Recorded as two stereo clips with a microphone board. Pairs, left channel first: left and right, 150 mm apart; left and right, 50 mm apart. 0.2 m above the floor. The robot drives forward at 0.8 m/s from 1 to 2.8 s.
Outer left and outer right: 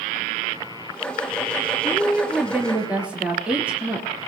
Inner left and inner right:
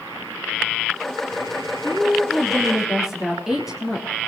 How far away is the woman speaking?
About 3 m.